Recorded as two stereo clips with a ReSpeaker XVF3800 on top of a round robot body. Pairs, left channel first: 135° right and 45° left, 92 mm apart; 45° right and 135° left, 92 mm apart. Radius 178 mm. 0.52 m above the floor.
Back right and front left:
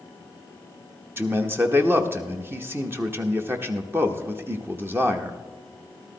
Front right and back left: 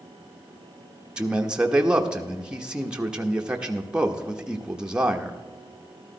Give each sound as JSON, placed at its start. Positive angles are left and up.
{"t": 1.2, "sound": "a man speaking", "azimuth_deg": 65, "distance_m": 1.1}